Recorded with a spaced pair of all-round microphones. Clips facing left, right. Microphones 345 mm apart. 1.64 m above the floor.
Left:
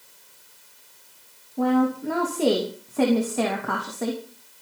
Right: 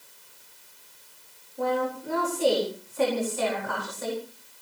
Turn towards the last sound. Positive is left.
turn(degrees=70)  # may be behind; listen again after turning